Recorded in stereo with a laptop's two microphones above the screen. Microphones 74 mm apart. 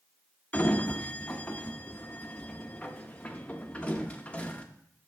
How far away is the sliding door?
About 0.8 m.